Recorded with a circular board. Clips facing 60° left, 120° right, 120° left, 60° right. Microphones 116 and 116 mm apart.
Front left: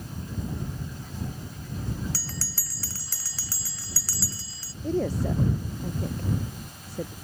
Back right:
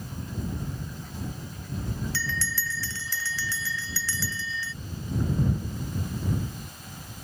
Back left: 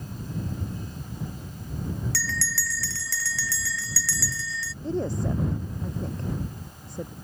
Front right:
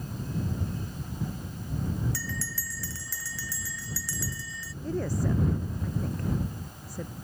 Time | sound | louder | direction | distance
2.1 | a bell | back right 5 dB, back left 4 dB | 110° left | ?
4.8 | a woman speaking | front left 6 dB, back left 2 dB | 55° left | ?